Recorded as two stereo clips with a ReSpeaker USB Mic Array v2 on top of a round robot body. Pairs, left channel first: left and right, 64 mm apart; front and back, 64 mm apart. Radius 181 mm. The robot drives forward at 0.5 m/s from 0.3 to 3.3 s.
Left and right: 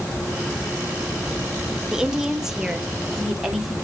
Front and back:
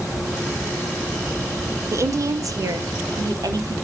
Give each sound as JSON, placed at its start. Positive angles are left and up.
{"t": 1.9, "sound": "a woman speaking", "azimuth_deg": -170, "distance_m": 0.8}